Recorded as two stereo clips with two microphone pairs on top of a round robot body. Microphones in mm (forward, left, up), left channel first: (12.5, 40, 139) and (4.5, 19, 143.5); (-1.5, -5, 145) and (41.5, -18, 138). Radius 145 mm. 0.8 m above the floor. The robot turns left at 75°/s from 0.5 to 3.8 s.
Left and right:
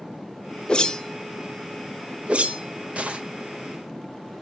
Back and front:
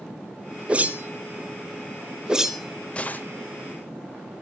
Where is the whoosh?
40° left, 1.1 m; by 3.2 s 150° right, 1.1 m.